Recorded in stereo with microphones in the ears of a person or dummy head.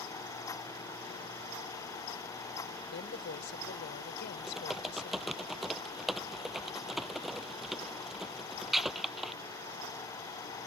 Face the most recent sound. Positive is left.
turn(degrees=0)  # may be behind; listen again after turning